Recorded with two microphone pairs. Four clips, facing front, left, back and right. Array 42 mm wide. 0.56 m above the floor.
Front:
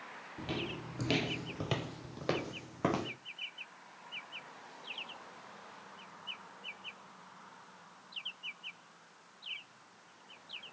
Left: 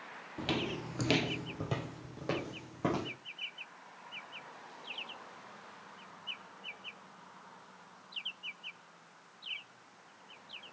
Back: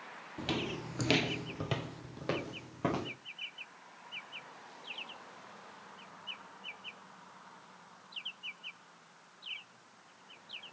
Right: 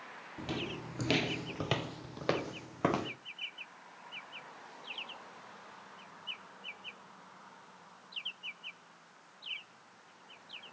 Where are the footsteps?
125° left, 1.1 m; by 3.1 s 75° right, 2.5 m.